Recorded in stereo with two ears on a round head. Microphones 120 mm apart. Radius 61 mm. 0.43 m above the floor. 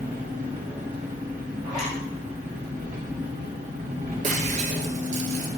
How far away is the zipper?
About 4.5 m.